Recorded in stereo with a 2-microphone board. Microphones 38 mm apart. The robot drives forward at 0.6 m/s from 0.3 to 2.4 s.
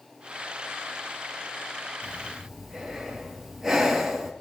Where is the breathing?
10° right (ahead or behind), 3.5 m.